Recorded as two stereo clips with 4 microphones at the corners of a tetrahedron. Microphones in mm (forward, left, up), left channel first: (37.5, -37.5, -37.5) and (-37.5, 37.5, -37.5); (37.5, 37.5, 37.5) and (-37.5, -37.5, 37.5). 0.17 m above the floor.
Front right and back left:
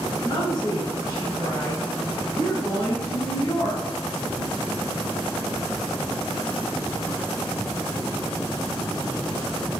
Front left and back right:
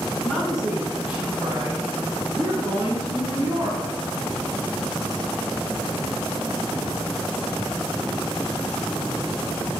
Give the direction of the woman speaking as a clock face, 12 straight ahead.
1 o'clock.